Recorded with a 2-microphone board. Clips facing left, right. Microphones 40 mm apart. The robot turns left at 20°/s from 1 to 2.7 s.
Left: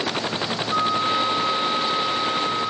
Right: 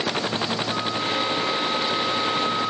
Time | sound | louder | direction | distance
0.7 | a flute | left 4 dB | 35° left | ?